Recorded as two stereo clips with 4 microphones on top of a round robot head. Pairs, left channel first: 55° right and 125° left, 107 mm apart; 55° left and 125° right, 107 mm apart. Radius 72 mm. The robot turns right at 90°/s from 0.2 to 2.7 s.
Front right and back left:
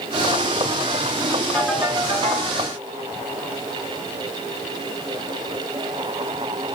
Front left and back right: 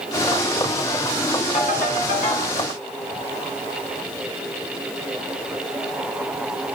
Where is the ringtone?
20° left, 2.5 m; by 2.5 s 105° left, 2.5 m.